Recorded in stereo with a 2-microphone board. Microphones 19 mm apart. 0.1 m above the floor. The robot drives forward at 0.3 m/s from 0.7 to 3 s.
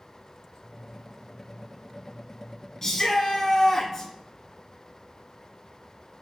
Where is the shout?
25° left (ahead or behind), 1.6 m.